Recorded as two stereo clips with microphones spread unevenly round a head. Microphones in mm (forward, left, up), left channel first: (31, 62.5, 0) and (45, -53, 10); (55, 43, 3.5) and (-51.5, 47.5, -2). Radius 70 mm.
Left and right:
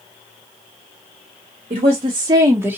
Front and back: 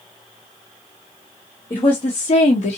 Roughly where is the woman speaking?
Ahead right.